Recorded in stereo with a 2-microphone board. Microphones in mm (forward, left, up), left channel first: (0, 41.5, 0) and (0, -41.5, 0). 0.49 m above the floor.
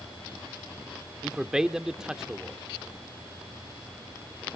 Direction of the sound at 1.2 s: 10° right (ahead or behind).